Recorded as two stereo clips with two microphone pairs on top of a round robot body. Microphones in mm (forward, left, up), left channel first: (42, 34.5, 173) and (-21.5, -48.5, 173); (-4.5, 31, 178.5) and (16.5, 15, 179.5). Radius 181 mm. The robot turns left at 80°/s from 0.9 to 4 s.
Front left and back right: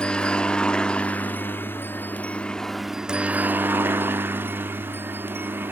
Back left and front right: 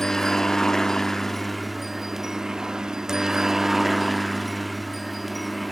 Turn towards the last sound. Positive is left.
turn(degrees=-130)